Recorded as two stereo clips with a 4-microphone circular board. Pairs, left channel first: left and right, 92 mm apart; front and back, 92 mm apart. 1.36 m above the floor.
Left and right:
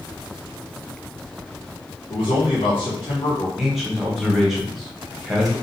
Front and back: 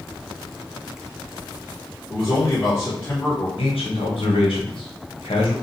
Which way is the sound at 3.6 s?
Straight ahead.